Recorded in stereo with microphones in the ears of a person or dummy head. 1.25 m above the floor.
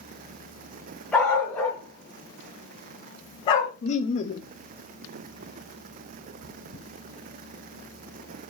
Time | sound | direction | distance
1.1 | a dog barking | 5° left (ahead or behind) | 2.5 m
3.8 | laughter | 40° left (ahead or behind) | 0.7 m
6.4 | chewing | 70° right (ahead or behind) | 3.5 m